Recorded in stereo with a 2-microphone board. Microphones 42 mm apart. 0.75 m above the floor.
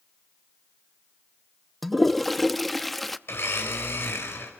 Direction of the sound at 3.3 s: 70° left (ahead or behind).